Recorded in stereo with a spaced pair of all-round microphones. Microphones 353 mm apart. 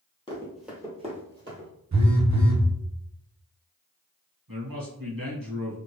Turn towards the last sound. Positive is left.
turn(degrees=-70)  # may be behind; listen again after turning